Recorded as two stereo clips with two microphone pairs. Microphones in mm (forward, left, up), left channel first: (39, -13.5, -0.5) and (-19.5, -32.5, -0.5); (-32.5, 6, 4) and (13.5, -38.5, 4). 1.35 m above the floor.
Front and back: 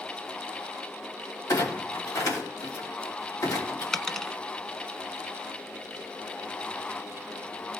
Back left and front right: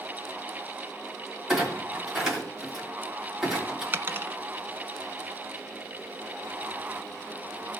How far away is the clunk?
About 3 m.